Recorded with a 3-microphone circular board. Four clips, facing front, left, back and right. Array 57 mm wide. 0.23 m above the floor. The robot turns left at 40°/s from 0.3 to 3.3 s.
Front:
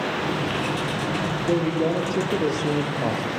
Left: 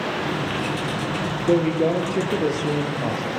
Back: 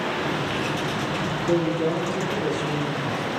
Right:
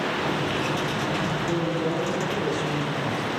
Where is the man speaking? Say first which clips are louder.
Left 11 dB, even; 90° left, 5 m; by 3.3 s 20° left, 5 m.